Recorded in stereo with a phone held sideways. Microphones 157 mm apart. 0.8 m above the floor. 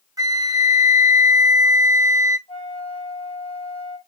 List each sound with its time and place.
0.2 s a flute: 25° right (ahead or behind), 0.5 m
2.5 s a flute: 40° left (ahead or behind), 1.3 m